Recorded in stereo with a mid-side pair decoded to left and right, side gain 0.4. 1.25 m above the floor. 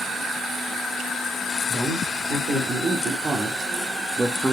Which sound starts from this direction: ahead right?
A man speaking, at 1.7 s.